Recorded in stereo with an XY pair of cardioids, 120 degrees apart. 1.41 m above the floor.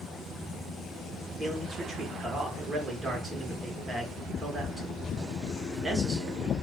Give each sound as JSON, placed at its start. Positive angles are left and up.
{"t": 1.4, "sound": "a man speaking", "azimuth_deg": -30, "distance_m": 1.1}